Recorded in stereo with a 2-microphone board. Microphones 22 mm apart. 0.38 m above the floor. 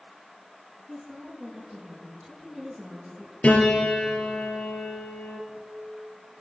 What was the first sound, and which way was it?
A woman speaking, 10° right (ahead or behind).